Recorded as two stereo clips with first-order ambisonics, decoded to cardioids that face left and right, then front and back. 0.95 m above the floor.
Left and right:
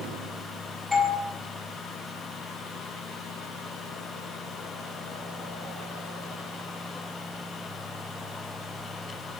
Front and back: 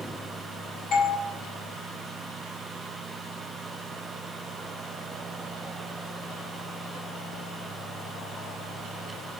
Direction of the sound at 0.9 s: 10° left.